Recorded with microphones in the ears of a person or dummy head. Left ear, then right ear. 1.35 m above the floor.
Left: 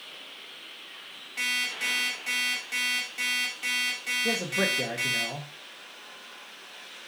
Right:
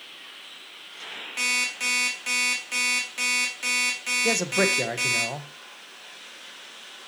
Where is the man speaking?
85° right, 1.0 m.